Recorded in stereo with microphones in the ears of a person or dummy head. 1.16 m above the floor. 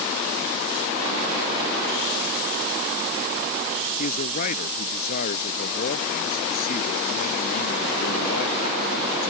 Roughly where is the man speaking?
Left.